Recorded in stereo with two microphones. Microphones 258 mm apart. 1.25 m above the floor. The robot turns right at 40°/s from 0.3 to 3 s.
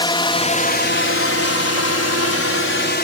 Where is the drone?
20° left (ahead or behind); by 3.0 s 40° left (ahead or behind).